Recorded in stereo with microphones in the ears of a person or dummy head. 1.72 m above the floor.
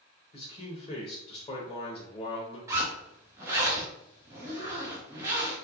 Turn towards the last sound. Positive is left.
turn(degrees=-20)  # may be behind; listen again after turning